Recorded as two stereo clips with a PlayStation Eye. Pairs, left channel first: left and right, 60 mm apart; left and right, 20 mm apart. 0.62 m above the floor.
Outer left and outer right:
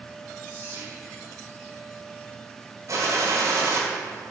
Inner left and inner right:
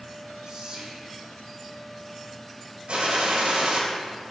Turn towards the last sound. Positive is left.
turn(degrees=-55)  # may be behind; listen again after turning